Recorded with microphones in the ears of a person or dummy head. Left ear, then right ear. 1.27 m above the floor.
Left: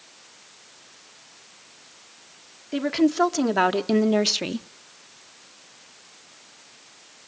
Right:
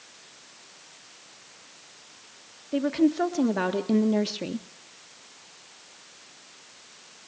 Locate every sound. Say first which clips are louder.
2.7 s a woman speaking: left 2 dB; 30° left (ahead or behind), 2 m; by 4.7 s 40° left (ahead or behind), 0.6 m